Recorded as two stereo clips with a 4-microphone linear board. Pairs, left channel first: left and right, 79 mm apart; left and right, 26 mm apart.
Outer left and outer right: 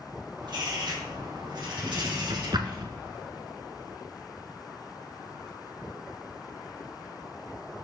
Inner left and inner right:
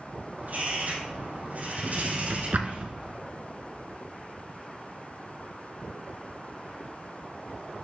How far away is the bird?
About 5 m.